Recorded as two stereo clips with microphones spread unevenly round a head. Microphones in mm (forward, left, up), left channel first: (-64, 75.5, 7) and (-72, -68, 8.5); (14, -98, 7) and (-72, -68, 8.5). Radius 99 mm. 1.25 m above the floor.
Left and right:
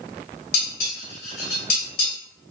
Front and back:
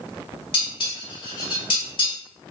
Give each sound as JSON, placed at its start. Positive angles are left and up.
{"t": 0.5, "sound": "dishes clattering", "azimuth_deg": 40, "distance_m": 1.6}